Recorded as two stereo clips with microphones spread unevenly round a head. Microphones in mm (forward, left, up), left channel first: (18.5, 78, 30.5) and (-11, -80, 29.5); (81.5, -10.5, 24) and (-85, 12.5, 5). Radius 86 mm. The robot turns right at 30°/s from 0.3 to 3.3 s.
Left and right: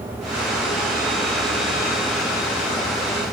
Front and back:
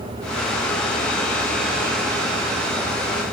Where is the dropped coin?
I don't hear a dropped coin.